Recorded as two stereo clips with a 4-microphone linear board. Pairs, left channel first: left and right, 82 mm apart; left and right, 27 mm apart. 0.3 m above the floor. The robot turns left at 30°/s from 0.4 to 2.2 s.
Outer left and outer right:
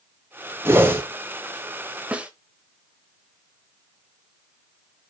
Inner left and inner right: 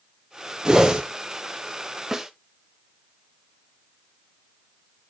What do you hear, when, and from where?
0.7 s a whoosh: 30° right (ahead or behind), 1.2 m; by 1.0 s 25° right (ahead or behind), 1.2 m
2.1 s a snare drum: 15° right (ahead or behind), 1.0 m